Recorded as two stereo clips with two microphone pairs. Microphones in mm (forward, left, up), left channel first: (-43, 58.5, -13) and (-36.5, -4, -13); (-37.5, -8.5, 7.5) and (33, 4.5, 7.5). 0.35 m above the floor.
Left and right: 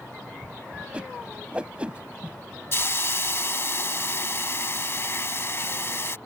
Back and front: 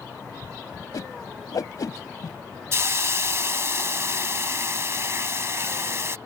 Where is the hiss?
55° left.